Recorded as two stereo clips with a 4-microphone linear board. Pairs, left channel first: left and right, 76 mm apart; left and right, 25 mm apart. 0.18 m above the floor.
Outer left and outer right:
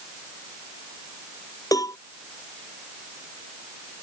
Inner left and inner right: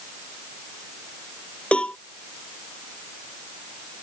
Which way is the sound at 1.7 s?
45° left (ahead or behind).